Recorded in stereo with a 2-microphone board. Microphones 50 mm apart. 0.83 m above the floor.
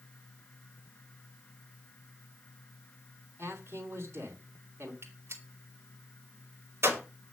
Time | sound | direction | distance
3.4 | a man speaking | 65° right (ahead or behind) | 2.5 m
5.0 | a gunshot | 65° right (ahead or behind) | 2.5 m